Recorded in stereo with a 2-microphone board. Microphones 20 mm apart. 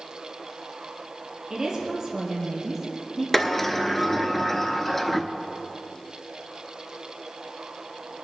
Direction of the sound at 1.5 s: 30° right (ahead or behind).